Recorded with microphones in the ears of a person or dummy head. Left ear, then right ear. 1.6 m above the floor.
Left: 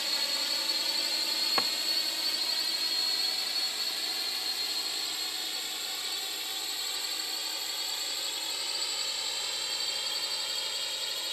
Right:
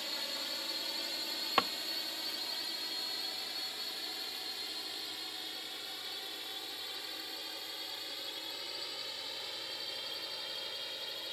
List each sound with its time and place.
0.0 s a drone: 25° left (ahead or behind)
1.6 s a drawer: 15° right (ahead or behind)